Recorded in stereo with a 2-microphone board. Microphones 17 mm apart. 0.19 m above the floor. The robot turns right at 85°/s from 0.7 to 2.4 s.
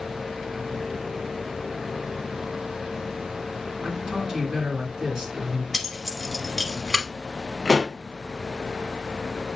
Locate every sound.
3.8 s a man speaking: 50° right (ahead or behind), 2.5 m
5.7 s keys jangling: 5° right (ahead or behind), 1.0 m
7.7 s a pop: 35° right (ahead or behind), 1.0 m